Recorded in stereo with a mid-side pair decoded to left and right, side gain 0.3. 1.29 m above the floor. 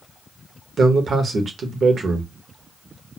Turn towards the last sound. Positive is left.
turn(degrees=-70)